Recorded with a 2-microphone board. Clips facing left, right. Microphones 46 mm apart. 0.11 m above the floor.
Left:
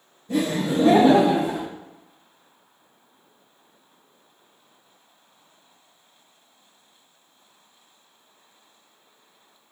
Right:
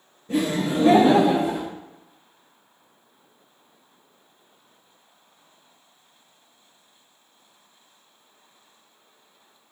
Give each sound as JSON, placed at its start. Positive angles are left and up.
{"t": 0.3, "sound": "laughter", "side_deg": -25, "distance_m": 1.3}